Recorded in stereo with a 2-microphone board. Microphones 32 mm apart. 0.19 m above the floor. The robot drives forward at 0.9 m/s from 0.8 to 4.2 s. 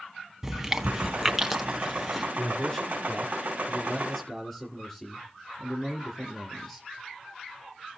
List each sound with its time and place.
0.4 s chewing: 10° right (ahead or behind), 1.0 m; by 2.2 s 5° right (ahead or behind), 2 m
2.4 s a man speaking: 25° left (ahead or behind), 2 m; by 6.9 s 15° left (ahead or behind), 3.5 m